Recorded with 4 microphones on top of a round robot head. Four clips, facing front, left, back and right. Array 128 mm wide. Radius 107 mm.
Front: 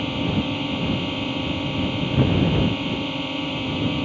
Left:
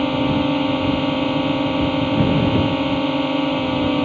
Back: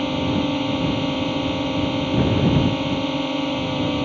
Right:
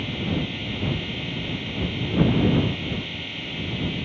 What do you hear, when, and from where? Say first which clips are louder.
0.0 s a drone: left 10 dB, back 3 dB; 110° left